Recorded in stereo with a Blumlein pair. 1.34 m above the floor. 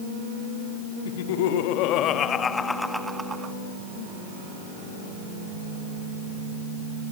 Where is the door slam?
I don't hear a door slam.